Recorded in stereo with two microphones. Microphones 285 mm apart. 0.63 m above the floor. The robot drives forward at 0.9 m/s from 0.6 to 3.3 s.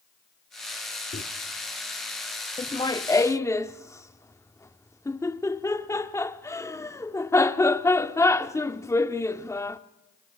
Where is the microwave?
45° left (ahead or behind), 1.3 m.